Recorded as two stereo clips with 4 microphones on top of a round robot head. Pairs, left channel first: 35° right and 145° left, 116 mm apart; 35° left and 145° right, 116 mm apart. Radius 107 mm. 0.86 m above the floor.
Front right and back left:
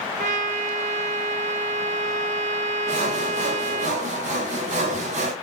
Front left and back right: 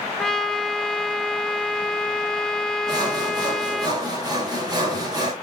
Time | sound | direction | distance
0.2 | a trumpet | 120° left | 0.7 m
2.9 | sawing | 155° left | 3.5 m